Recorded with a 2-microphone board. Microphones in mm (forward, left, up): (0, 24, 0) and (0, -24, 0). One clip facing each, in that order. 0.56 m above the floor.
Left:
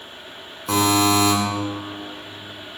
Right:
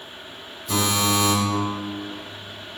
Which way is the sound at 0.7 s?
75° left (ahead or behind).